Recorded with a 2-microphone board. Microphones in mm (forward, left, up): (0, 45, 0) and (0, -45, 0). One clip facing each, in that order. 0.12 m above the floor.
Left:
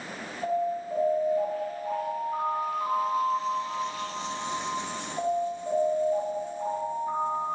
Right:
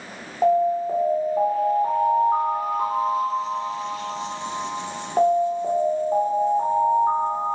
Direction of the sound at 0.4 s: 65° right (ahead or behind).